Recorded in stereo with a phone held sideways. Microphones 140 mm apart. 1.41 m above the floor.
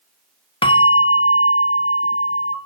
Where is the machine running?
I don't hear a machine running.